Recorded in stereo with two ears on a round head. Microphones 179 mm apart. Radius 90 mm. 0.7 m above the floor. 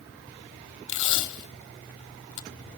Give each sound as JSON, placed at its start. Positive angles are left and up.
{"t": 0.9, "sound": "tape being pulled", "side_deg": 70, "distance_m": 0.8}